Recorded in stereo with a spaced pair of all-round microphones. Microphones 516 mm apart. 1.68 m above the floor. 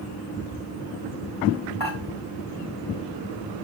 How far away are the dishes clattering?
About 3 m.